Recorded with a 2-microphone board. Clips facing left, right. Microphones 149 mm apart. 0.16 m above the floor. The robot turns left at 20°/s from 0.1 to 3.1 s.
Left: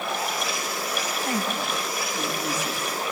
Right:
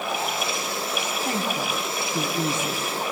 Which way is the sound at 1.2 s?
20° right (ahead or behind).